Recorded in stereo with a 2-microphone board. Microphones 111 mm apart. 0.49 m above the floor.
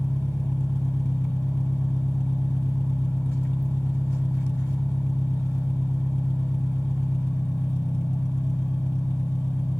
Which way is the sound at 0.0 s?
20° left (ahead or behind).